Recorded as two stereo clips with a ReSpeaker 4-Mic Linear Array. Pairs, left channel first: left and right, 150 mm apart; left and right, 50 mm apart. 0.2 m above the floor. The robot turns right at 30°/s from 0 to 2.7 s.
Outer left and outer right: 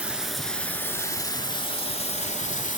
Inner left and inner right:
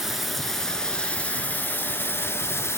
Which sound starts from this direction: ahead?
Running water, at 0.0 s.